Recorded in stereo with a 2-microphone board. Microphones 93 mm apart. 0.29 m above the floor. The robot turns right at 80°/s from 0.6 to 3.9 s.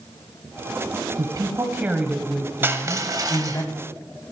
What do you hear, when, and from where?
1.2 s a woman speaking: 80° right, 1.6 m; by 3.6 s 115° left, 1.6 m
2.6 s crushing: 140° right, 1.0 m; by 3.6 s 60° right, 1.0 m